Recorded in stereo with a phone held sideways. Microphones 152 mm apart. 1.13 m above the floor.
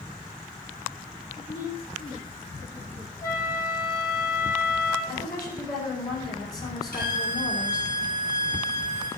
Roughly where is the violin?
Left.